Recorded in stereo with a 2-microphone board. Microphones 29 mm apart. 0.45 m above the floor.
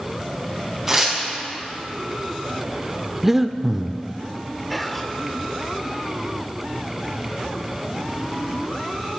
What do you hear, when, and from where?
0.9 s tearing paper: 15° right (ahead or behind), 4 m
3.2 s breathing: 15° right (ahead or behind), 0.6 m
4.7 s whispering: centre (ahead or behind), 0.9 m